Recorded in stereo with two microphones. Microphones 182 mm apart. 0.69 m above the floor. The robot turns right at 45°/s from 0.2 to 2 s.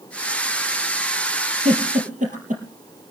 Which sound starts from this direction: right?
A giggle, at 1.6 s.